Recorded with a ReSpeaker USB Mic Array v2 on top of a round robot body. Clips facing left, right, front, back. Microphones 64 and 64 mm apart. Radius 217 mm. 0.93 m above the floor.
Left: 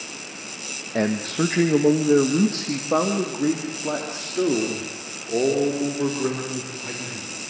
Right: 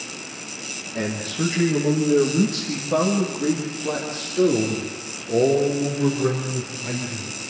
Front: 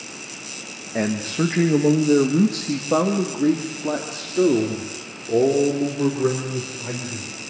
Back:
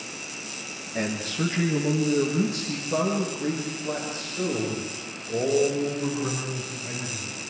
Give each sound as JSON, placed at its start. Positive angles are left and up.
{"t": 0.9, "sound": "a man speaking", "azimuth_deg": 60, "distance_m": 1.9}